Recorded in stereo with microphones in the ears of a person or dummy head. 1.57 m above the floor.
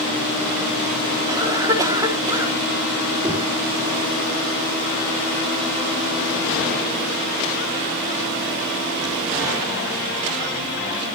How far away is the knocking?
About 5 m.